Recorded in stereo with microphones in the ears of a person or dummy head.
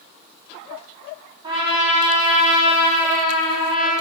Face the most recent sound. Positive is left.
turn(degrees=-30)  # may be behind; listen again after turning